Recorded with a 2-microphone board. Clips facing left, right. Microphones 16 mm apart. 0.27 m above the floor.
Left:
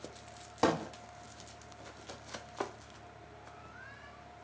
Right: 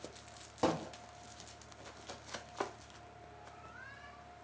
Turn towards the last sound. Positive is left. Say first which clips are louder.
# left 4 dB
turn(degrees=30)  # may be behind; listen again after turning